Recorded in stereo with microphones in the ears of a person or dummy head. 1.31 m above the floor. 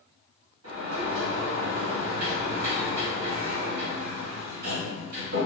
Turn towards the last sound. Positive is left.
turn(degrees=-90)